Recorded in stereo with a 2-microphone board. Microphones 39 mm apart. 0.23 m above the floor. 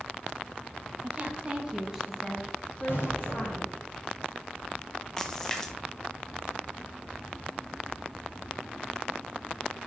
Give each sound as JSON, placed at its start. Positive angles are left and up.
{"t": 1.0, "sound": "a woman speaking", "side_deg": -45, "distance_m": 2.0}
{"t": 2.9, "sound": "an explosion", "side_deg": 85, "distance_m": 3.5}
{"t": 5.2, "sound": "a splash", "side_deg": 15, "distance_m": 1.0}